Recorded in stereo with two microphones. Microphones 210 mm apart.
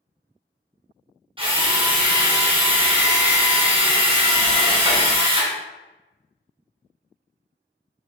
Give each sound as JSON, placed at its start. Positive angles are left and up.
{"t": 1.4, "sound": "a drill", "side_deg": -25, "distance_m": 0.6}